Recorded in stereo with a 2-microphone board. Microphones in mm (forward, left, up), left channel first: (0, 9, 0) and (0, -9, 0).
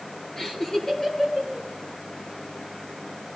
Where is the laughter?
30° left (ahead or behind), 4 m.